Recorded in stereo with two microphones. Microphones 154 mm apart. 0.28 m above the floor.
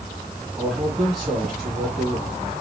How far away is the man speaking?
About 4.5 m.